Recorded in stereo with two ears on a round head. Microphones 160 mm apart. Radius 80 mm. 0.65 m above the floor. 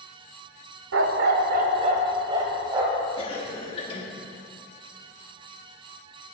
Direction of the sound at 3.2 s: 30° left (ahead or behind).